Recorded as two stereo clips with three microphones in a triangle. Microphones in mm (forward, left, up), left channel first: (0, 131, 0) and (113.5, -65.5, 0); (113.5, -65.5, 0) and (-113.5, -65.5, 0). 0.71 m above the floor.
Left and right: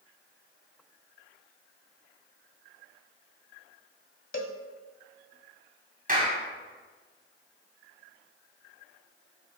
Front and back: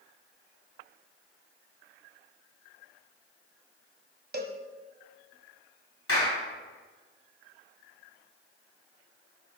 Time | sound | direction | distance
4.3 | a cowbell | 140° left | 1.0 m
6.1 | a clap | 10° right | 5 m